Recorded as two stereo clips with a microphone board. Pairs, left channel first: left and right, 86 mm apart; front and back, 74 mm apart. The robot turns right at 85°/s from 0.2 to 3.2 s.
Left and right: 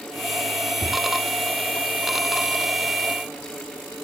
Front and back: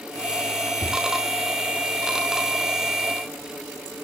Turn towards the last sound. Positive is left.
turn(degrees=50)